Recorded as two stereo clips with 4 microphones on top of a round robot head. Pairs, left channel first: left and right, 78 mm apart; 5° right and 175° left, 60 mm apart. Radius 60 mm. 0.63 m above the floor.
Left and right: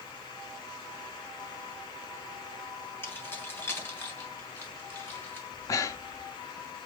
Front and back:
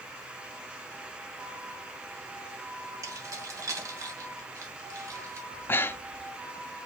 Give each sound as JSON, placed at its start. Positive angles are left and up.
{"t": 3.0, "sound": "keys jangling", "azimuth_deg": 150, "distance_m": 2.5}
{"t": 5.5, "sound": "breathing", "azimuth_deg": 45, "distance_m": 0.8}